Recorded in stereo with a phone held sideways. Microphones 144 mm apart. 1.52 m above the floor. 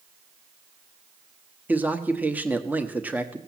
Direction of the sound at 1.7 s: 10° right (ahead or behind).